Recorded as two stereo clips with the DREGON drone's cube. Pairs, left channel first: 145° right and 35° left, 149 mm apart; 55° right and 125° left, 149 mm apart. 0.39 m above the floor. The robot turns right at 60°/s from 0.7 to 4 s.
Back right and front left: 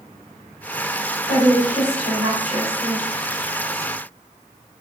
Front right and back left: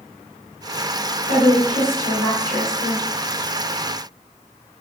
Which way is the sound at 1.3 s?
55° right.